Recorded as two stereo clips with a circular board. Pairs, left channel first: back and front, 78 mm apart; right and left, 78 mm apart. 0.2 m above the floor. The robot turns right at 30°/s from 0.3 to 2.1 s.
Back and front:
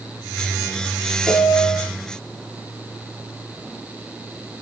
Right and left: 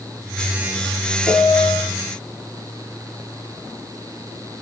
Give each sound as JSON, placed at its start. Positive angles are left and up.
{"t": 1.3, "sound": "a piano", "azimuth_deg": -80, "distance_m": 0.8}